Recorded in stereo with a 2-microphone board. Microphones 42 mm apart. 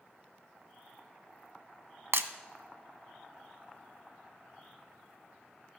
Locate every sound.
2.1 s breaking glass: 65° right (ahead or behind), 0.6 m